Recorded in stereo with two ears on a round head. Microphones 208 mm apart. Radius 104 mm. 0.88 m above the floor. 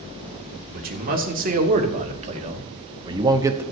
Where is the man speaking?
40° right (ahead or behind), 2.5 m; by 3.6 s 10° right (ahead or behind), 1.2 m.